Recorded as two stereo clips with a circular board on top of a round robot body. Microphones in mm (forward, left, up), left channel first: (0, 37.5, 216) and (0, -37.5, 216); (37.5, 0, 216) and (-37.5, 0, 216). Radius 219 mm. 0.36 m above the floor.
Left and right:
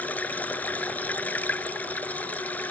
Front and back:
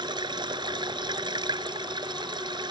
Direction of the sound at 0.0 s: 160° left.